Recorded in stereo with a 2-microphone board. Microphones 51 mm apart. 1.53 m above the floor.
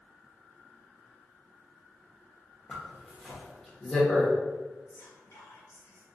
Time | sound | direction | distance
2.7 | a zipper | 15° left (ahead or behind) | 0.7 m
4.9 | whispering | 70° left (ahead or behind) | 1.0 m